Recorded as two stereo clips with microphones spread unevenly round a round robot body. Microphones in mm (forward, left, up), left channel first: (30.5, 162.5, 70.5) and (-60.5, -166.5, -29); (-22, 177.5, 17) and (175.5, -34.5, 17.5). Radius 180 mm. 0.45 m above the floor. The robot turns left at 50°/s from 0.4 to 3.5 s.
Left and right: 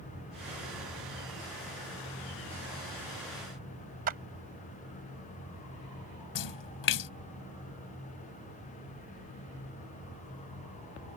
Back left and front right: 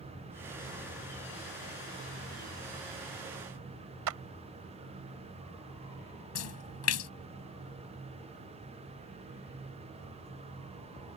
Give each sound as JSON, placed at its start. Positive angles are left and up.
{"t": 4.1, "sound": "a clap", "azimuth_deg": -50}
{"t": 6.3, "sound": "a splash", "azimuth_deg": 110}